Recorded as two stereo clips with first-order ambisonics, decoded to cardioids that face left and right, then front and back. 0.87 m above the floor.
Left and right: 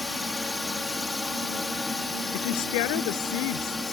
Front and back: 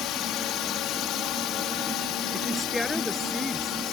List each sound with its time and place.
0.0 s a drone: 15° left
2.3 s a woman speaking: 85° left